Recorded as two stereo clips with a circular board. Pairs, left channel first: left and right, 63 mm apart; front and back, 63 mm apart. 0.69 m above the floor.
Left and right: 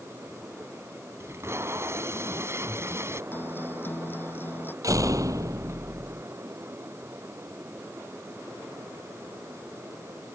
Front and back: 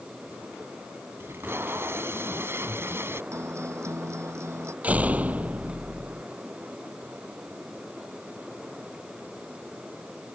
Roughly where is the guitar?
Behind left.